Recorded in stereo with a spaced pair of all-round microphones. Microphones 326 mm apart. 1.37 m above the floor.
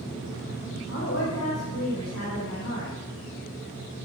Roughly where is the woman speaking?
Left.